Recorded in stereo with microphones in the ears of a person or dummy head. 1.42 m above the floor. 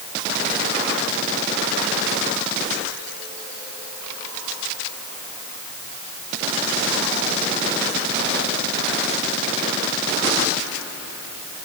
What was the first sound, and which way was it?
Only background noise.